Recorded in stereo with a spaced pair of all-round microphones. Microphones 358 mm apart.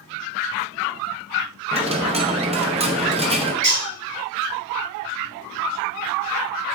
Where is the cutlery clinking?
60° right (ahead or behind), 1.7 m.